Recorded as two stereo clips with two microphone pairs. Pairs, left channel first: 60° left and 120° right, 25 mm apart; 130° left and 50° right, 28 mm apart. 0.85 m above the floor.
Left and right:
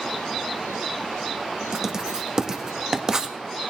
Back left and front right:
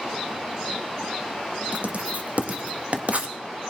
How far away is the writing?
About 1.5 m.